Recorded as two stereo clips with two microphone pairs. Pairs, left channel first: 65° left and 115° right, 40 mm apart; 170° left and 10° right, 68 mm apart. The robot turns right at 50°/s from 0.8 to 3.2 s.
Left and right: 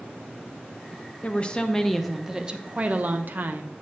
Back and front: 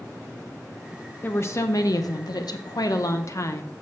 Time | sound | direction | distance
1.2 | a woman speaking | 115° left | 0.7 m